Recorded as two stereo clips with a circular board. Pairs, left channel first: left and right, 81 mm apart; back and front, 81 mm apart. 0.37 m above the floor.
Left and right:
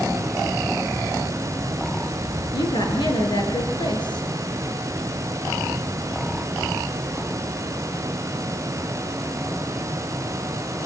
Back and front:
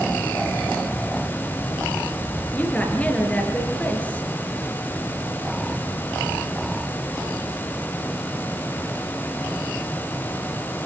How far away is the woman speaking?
About 7 m.